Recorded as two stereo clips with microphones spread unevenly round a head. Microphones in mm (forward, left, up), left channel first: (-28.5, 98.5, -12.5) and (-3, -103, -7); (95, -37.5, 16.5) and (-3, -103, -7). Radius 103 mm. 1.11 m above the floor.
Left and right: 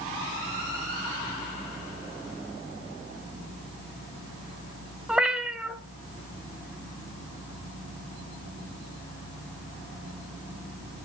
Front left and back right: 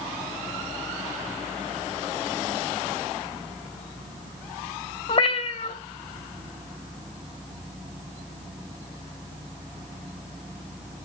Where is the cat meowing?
5° left, 1.9 m.